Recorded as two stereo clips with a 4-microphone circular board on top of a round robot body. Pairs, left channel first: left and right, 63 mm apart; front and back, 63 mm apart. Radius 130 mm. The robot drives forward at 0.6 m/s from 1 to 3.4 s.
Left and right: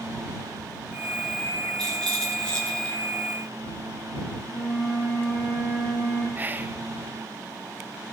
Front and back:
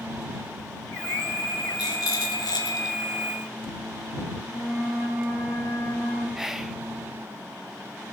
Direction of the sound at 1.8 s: 10° left.